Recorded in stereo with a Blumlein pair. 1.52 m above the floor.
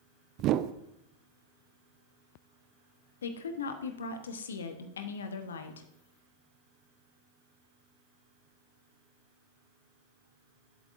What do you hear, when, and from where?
0.4 s a whoosh: 35° right, 0.5 m
3.2 s a woman speaking: 65° left, 1.1 m